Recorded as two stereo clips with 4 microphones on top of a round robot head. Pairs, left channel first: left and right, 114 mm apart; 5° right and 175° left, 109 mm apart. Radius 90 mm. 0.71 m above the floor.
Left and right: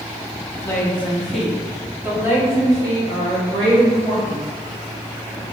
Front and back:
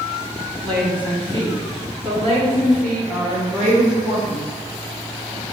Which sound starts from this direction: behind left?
A woman speaking, at 0.6 s.